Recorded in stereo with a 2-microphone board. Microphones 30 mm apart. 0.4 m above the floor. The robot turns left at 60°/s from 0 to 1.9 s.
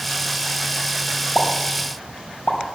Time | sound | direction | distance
1.4 | a pop | 30° left (ahead or behind) | 3 m